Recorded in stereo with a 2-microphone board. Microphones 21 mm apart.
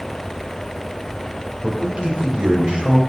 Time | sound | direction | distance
1.6 | a man speaking | 50° right (ahead or behind) | 3 m